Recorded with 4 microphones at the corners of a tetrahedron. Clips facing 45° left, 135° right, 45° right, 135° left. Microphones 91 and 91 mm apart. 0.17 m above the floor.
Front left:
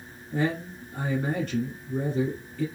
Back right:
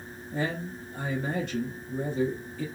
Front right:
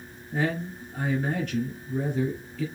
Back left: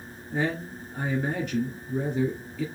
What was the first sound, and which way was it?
A man speaking, 60° left.